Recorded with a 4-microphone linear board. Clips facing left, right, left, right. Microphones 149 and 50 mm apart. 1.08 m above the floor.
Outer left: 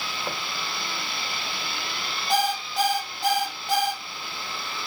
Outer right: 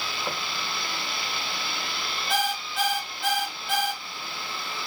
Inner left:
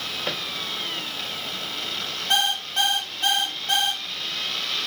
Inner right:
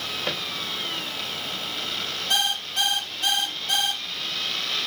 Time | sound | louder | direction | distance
2.3 | an alarm clock | outer left 4 dB, inner left 3 dB | 40° left (ahead or behind) | 0.8 m